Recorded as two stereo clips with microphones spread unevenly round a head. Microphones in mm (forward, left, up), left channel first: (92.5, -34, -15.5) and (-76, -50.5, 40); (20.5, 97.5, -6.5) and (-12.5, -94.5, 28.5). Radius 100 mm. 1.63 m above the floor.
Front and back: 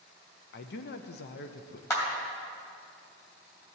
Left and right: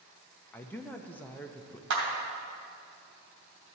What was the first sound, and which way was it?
A man speaking, 10° right.